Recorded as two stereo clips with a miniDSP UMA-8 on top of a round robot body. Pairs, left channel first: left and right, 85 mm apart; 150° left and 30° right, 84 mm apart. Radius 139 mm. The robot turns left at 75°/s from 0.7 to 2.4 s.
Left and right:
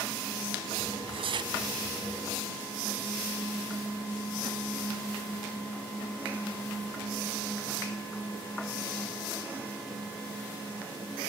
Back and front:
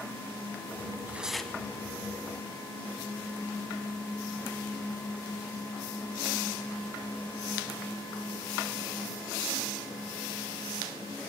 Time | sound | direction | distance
0.9 | tearing paper | 90° right | 0.7 m